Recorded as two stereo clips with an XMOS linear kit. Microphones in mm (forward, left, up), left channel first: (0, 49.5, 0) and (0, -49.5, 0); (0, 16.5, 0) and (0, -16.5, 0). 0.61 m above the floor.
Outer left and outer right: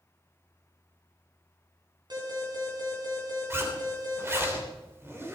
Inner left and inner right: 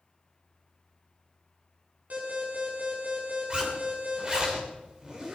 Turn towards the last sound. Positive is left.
turn(degrees=-25)  # may be behind; listen again after turning